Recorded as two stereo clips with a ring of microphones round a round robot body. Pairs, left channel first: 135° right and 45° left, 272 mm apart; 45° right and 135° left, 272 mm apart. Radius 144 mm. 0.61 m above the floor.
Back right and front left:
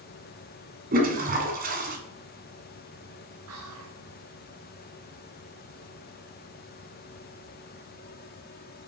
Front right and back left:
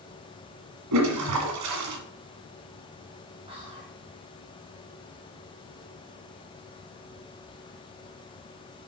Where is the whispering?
65° left, 1.2 m.